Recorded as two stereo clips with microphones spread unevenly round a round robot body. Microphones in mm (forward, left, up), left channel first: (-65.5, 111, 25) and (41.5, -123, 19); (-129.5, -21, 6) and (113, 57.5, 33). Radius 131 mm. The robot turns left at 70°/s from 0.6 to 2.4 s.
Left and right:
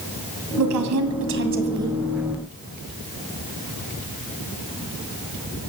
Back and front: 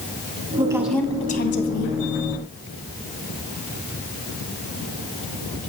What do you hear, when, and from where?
0.6 s a woman speaking: 55° right, 2 m; by 2.0 s 150° right, 2 m